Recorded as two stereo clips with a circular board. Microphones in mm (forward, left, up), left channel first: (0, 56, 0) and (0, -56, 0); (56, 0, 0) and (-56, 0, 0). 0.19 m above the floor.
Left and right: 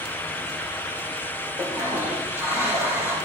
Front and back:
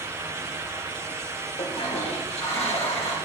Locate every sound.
1.6 s a toilet flushing: 20° right, 2.5 m